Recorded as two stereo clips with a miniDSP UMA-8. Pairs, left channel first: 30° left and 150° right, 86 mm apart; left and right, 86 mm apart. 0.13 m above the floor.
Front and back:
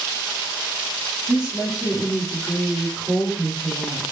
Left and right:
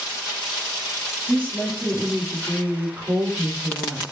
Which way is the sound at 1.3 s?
140° left.